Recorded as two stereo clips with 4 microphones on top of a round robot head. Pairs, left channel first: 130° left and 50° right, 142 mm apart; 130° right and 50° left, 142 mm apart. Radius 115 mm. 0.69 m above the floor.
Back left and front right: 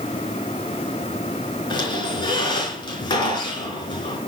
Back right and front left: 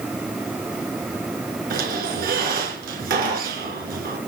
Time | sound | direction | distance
1.7 | a squeak | 70° left | 4 m